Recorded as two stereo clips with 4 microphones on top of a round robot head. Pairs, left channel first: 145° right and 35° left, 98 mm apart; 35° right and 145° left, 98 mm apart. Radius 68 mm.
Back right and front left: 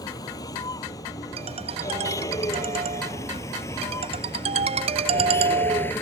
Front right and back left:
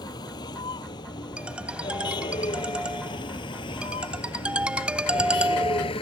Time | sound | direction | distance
0.0 | a vehicle | 85° right | ?
1.4 | a ringtone | 65° left | ?